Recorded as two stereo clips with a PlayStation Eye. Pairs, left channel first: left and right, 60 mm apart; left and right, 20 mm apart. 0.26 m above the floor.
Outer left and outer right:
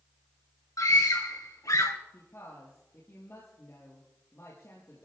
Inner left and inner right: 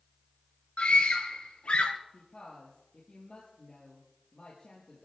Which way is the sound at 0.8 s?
75° left (ahead or behind).